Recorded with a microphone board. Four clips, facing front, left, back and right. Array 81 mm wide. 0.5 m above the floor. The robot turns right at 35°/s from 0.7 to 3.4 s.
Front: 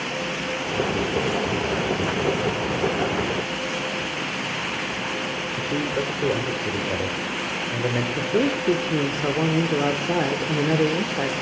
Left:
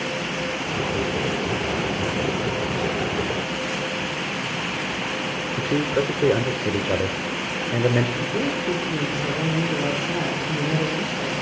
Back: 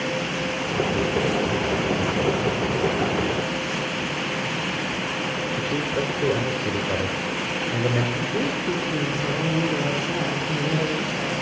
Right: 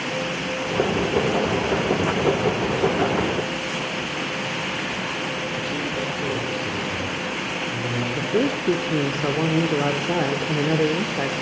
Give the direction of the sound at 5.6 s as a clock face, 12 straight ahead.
9 o'clock.